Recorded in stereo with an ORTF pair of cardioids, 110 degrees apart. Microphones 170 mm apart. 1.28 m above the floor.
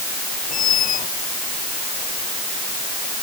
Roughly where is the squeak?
Ahead left.